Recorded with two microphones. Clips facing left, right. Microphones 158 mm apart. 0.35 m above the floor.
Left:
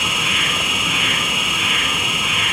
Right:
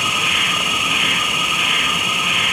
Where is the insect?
45° left (ahead or behind), 3.5 m.